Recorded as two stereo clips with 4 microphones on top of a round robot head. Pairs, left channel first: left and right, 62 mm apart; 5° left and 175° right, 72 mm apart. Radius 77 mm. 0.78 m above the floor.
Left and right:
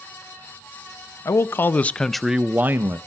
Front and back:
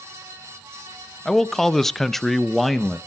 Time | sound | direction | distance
1.2 | a man speaking | 90° left | 0.8 m